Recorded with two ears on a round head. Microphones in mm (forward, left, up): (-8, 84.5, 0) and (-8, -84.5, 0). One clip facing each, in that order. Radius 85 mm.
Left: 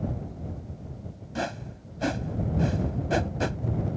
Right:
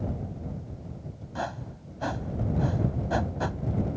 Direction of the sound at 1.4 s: 30° left (ahead or behind).